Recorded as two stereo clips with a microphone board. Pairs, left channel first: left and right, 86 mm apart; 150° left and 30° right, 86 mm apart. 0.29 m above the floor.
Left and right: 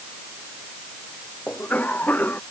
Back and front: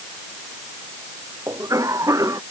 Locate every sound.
1.5 s a cough: 20° left